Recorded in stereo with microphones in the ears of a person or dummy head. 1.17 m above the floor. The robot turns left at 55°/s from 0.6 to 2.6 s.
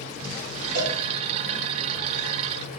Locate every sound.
0.8 s a cowbell: 65° right (ahead or behind), 2.5 m; by 1.0 s 50° right (ahead or behind), 2.5 m